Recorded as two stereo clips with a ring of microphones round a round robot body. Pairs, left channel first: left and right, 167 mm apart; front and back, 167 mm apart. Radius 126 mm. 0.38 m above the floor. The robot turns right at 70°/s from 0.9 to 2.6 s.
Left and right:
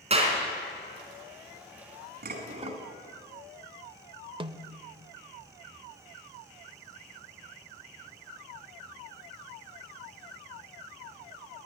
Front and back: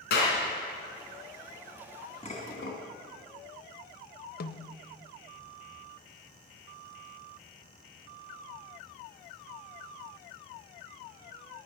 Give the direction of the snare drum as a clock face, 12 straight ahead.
1 o'clock.